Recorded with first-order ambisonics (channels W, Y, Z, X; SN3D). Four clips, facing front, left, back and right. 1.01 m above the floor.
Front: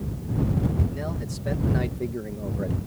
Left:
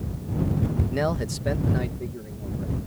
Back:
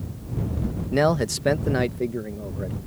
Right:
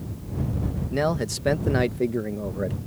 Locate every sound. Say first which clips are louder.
0.9 s a man speaking: right 6 dB, back 12 dB; 175° right; by 2.8 s 80° right